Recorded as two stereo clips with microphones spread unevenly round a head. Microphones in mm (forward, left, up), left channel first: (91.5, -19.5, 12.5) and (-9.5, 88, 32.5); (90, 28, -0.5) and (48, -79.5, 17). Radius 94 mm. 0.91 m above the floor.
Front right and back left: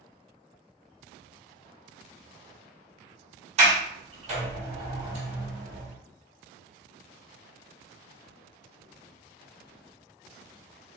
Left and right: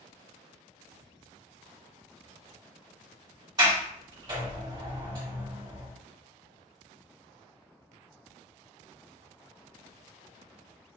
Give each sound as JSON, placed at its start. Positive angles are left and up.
{"t": 3.6, "sound": "a sliding door", "azimuth_deg": 180, "distance_m": 1.0}